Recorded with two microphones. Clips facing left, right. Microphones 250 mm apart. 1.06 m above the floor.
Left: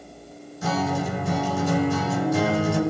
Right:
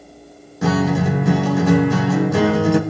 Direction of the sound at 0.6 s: 70° right (ahead or behind).